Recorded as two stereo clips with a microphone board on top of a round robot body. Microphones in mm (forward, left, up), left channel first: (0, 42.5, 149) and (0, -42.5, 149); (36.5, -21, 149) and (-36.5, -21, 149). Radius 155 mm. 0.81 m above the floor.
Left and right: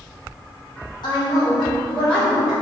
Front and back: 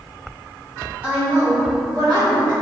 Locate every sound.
1.0 s a woman speaking: 115° left, 1.5 m; by 2.5 s 175° right, 1.7 m